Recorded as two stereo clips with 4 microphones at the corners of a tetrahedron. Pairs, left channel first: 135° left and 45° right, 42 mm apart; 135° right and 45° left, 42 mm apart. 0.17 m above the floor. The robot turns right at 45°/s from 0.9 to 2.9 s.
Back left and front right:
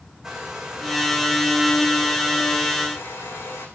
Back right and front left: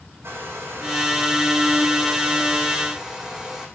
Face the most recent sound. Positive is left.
turn(degrees=125)